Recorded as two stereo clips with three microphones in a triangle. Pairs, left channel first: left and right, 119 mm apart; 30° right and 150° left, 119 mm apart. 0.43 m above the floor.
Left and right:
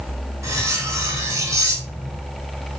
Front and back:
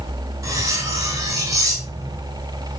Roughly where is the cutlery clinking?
Behind right.